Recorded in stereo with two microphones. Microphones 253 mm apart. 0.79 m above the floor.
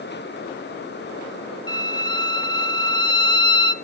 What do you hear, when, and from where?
1.7 s a violin: 15° left (ahead or behind), 0.7 m